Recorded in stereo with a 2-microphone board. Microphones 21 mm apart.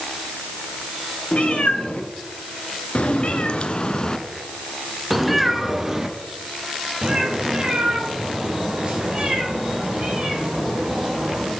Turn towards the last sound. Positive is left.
turn(degrees=-45)  # may be behind; listen again after turning